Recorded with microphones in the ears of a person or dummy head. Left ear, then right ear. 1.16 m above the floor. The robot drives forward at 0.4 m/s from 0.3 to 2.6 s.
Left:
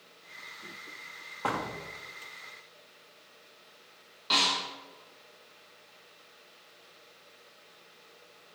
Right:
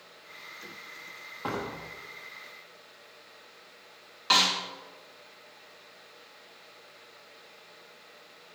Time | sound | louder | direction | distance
1.4 | a door slam | left 2 dB | 25° left (ahead or behind) | 1.1 m
4.3 | a snare drum | right 3 dB | 50° right (ahead or behind) | 2 m